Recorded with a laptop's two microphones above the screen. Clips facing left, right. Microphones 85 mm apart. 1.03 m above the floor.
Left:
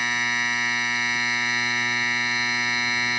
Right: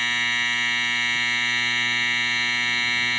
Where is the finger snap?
I don't hear a finger snap.